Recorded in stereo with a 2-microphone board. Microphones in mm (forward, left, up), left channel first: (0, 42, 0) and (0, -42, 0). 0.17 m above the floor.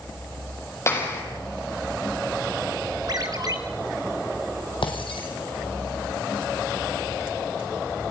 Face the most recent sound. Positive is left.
turn(degrees=80)